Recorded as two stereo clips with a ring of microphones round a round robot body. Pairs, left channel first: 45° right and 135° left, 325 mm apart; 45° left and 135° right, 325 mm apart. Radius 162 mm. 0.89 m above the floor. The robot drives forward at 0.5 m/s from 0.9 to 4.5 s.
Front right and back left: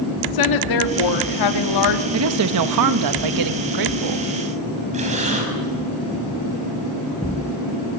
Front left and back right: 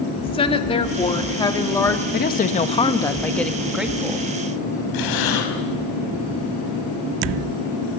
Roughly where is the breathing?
Ahead left.